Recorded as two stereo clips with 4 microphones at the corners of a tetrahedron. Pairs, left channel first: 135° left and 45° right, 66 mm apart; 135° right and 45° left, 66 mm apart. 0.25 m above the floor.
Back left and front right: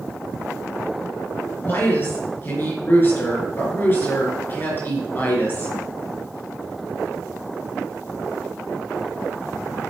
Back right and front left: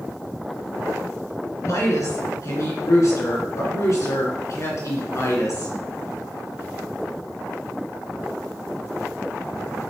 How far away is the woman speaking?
About 3.5 m.